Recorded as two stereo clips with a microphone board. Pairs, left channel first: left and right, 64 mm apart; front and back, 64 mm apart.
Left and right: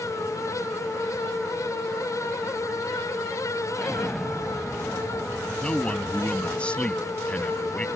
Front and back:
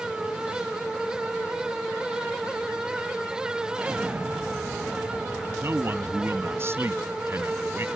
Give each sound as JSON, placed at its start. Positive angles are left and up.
{"t": 3.7, "sound": "an explosion", "azimuth_deg": 175}
{"t": 5.6, "sound": "a man speaking", "azimuth_deg": 155}